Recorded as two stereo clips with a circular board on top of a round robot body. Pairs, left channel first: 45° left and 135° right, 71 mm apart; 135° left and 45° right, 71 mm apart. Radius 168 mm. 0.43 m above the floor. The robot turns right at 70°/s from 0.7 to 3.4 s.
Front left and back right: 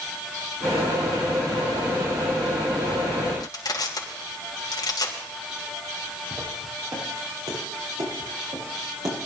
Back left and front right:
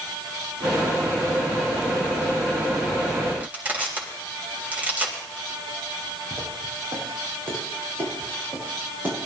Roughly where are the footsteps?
Right.